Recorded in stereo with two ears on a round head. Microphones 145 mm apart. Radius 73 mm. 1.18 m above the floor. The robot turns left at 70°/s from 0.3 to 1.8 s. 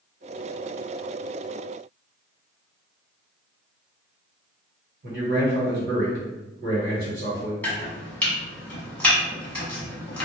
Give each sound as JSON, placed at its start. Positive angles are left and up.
{"t": 5.0, "sound": "a man speaking", "side_deg": -75, "distance_m": 1.2}
{"t": 7.6, "sound": "chopping", "side_deg": 10, "distance_m": 0.9}